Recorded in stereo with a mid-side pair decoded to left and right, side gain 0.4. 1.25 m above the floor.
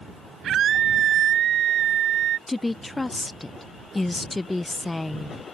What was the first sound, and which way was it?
A scream, 65° right.